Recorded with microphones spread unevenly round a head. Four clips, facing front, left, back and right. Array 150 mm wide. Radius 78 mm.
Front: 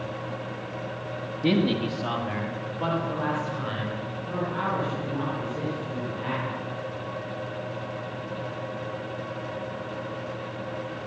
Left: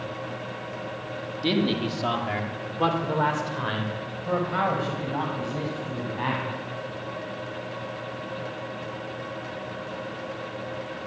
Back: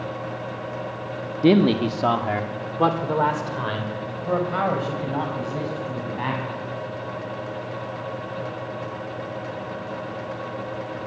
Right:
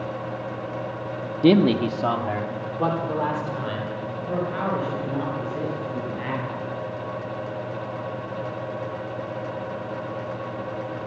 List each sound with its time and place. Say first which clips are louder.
1.4 s a man speaking: right 8 dB, back 7 dB; 135° right, 1.6 m; by 6.5 s 165° left, 8.5 m